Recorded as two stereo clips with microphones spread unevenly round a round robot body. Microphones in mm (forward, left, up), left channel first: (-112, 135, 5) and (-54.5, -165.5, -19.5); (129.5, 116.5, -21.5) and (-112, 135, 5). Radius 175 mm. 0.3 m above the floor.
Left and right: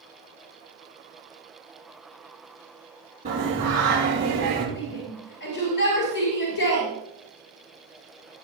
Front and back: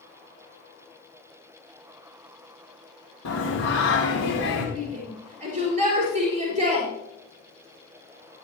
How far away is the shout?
About 4.5 m.